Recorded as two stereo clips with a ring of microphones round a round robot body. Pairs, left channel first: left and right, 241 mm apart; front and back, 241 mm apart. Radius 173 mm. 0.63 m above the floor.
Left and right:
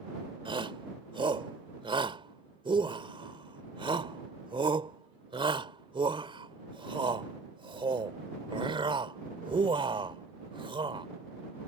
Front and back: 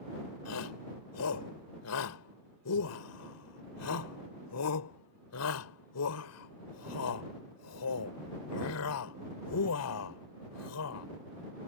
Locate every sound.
0.5 s a shout: 20° right